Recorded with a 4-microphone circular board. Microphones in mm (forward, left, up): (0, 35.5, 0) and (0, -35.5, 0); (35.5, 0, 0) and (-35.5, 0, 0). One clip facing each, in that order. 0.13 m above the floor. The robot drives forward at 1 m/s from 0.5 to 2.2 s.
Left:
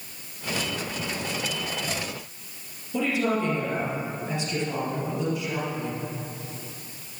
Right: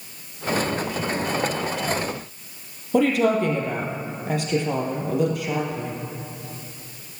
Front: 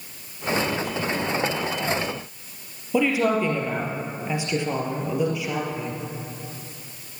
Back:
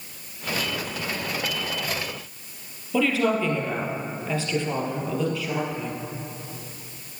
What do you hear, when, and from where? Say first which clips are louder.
2.9 s a woman speaking: right 6 dB, front 1 dB; 70° right, 3 m